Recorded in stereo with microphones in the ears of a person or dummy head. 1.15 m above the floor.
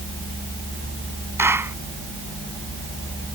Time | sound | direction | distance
1.4 | a clap | 15° right (ahead or behind) | ?